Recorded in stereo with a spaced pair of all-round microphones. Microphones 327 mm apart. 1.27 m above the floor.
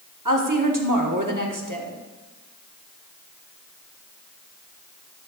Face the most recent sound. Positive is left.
turn(degrees=-70)  # may be behind; listen again after turning